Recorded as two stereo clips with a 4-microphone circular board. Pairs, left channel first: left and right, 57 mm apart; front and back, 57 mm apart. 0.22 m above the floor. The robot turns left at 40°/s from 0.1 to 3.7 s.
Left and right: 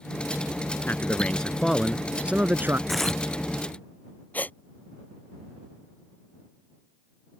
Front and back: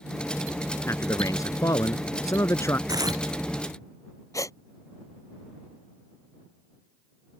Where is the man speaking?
35° left; by 2.8 s 40° right.